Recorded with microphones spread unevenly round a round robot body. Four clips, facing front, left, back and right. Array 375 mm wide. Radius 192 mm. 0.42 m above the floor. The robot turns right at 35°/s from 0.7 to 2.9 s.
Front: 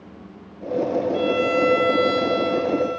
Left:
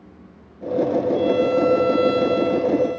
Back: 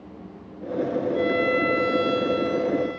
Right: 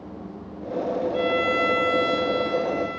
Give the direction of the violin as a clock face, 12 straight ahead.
1 o'clock.